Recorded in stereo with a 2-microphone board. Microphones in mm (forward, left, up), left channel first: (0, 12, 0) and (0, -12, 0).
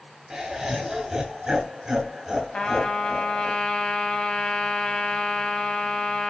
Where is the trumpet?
45° left (ahead or behind), 1.3 m.